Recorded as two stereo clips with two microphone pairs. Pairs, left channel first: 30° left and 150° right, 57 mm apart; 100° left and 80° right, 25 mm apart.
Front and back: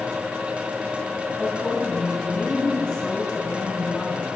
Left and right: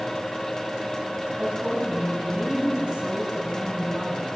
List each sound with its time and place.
1.4 s a woman speaking: 50° right, 5 m